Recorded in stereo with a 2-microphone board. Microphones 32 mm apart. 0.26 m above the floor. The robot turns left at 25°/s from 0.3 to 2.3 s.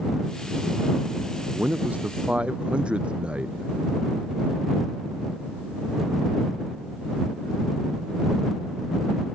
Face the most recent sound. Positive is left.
turn(degrees=-35)  # may be behind; listen again after turning